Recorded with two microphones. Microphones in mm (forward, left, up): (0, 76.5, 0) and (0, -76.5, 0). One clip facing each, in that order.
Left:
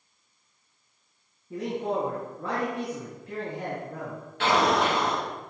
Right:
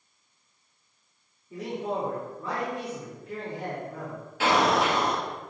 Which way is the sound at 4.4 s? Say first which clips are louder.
Even; centre (ahead or behind).